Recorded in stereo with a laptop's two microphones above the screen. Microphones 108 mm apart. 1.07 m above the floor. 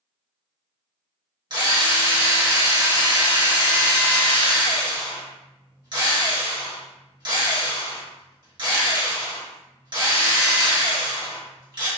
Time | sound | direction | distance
1.5 | a drill | 45° right (ahead or behind) | 1.1 m